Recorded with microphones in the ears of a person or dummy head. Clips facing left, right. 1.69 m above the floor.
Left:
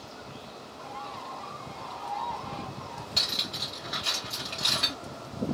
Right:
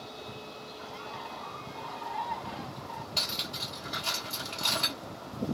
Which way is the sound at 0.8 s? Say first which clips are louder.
Left 3 dB; 10° right (ahead or behind).